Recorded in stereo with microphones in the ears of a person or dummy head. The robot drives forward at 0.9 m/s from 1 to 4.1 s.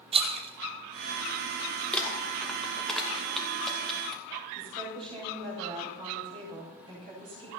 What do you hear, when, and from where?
0.1 s a rattle: 30° right (ahead or behind), 0.7 m; by 1.8 s 15° right (ahead or behind), 1.3 m
1.9 s crumpling: 5° left (ahead or behind), 1.5 m
4.5 s a woman speaking: 30° right (ahead or behind), 8 m